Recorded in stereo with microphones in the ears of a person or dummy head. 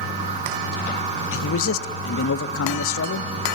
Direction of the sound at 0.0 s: 40° right (ahead or behind).